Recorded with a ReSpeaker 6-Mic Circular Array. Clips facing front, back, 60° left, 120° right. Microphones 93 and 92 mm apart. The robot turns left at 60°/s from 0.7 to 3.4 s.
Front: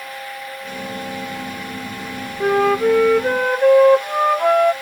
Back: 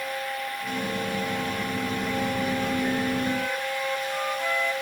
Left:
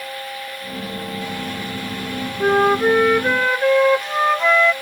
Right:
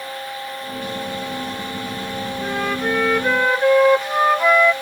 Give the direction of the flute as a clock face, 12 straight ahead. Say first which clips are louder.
Front 10 dB, left 9 dB; 11 o'clock.